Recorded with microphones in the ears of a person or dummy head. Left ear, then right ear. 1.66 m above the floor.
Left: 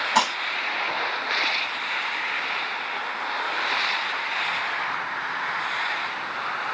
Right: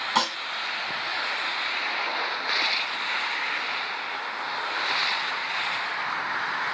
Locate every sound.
0.1 s dishes clattering: 10° right (ahead or behind), 1.5 m